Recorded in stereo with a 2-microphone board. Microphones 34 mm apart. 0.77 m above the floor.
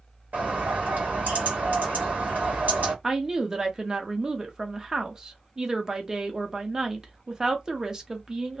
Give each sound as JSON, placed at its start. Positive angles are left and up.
{"t": 0.3, "sound": "a bird", "side_deg": -55, "distance_m": 1.5}
{"t": 3.0, "sound": "a woman speaking", "side_deg": -20, "distance_m": 0.7}